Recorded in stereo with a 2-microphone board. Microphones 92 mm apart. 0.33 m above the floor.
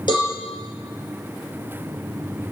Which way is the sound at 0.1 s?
55° left (ahead or behind).